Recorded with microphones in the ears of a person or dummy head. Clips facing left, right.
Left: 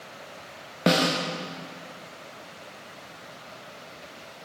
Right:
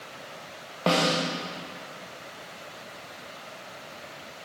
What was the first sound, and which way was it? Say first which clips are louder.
A snare drum: left 1 dB; 25° left (ahead or behind).